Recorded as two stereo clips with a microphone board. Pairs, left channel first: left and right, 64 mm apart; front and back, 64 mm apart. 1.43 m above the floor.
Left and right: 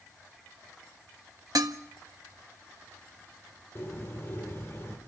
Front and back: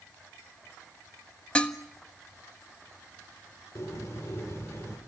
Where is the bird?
40° left, 5 m.